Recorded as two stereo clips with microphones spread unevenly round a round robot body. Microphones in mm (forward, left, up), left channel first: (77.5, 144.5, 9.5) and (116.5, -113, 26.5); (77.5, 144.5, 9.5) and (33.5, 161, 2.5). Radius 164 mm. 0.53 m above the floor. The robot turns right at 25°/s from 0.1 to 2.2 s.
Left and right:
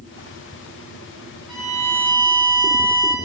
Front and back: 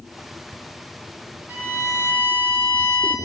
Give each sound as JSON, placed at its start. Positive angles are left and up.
{"t": 1.5, "sound": "a violin", "azimuth_deg": 120, "distance_m": 4.5}